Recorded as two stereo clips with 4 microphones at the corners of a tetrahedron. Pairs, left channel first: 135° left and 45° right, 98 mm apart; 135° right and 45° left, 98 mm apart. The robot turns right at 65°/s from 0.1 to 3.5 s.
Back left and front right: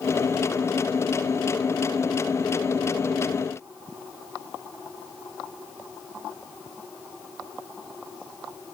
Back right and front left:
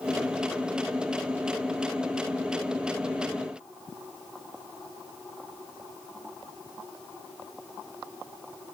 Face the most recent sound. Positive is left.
No sound to turn to.